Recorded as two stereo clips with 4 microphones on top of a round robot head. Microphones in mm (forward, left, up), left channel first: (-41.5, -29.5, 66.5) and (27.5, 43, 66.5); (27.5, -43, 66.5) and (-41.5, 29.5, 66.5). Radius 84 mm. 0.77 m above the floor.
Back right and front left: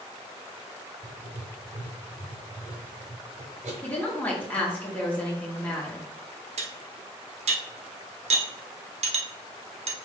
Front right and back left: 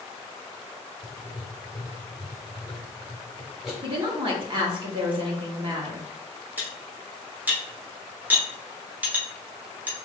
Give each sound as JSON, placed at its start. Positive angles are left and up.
{"t": 1.0, "sound": "writing", "azimuth_deg": 45, "distance_m": 0.9}
{"t": 3.8, "sound": "a woman speaking", "azimuth_deg": 155, "distance_m": 1.6}
{"t": 6.6, "sound": "cutlery clinking", "azimuth_deg": 60, "distance_m": 1.0}